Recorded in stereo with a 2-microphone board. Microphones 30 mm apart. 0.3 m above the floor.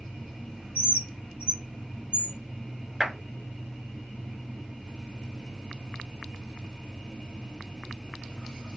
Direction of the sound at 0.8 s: 45° right (ahead or behind).